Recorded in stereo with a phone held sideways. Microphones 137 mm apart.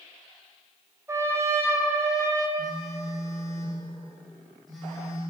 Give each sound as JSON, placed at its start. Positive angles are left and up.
{"t": 1.1, "sound": "a trumpet", "side_deg": -20, "distance_m": 0.8}
{"t": 2.6, "sound": "a phone buzzing", "side_deg": 0, "distance_m": 1.9}